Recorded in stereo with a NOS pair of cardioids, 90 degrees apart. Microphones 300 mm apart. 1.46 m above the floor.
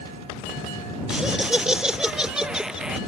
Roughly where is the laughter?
Ahead.